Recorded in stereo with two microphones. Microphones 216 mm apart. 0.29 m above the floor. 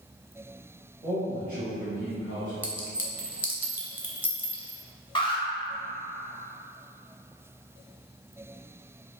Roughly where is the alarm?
Left.